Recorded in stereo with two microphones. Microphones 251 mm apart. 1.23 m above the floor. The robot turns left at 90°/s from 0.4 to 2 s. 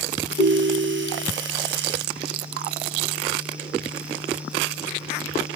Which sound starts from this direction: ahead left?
A ringtone, at 0.4 s.